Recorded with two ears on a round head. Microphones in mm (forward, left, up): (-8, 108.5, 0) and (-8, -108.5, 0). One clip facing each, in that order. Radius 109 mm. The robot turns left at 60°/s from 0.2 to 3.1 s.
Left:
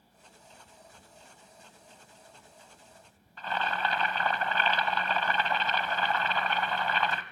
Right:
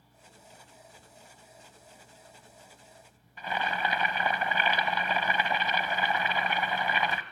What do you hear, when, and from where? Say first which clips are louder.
3.4 s boiling: even; 10° right (ahead or behind), 0.9 m